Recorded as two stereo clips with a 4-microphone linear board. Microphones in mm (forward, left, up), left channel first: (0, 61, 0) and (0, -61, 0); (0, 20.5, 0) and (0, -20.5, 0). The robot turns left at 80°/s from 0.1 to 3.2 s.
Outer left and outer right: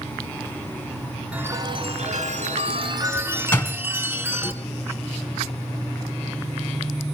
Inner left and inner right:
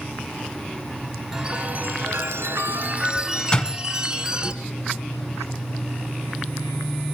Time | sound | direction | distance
1.3 | a chime | 10° right | 2 m
3.5 | a door slam | 15° left (ahead or behind) | 1.9 m